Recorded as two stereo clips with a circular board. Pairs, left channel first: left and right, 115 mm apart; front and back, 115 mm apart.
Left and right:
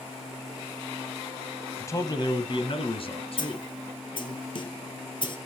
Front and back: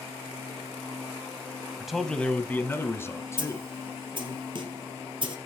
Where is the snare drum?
135° left, 1.8 m.